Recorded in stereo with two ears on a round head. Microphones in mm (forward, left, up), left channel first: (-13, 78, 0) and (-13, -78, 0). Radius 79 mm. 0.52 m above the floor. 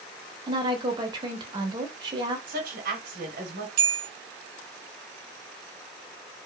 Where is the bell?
55° right (ahead or behind), 1.0 m.